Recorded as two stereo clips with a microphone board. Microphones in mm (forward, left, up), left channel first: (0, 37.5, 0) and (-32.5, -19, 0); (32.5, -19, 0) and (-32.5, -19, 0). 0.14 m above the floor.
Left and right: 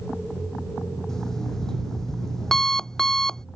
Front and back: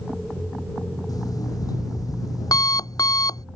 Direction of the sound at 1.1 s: 25° right.